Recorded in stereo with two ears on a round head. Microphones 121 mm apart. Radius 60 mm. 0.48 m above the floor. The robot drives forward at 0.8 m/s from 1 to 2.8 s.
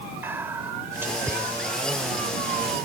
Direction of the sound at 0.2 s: 15° right (ahead or behind).